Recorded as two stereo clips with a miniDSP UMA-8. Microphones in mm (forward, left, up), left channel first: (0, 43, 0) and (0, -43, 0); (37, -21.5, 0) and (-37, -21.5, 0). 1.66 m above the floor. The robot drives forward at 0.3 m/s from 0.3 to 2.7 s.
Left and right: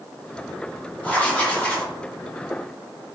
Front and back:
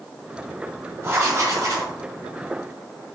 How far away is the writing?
About 0.7 m.